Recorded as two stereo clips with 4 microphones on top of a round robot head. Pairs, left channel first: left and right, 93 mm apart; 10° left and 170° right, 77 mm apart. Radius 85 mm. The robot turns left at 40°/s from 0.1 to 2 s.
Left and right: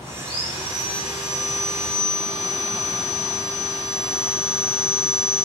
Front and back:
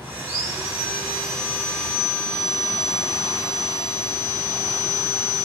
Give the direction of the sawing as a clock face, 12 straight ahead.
7 o'clock.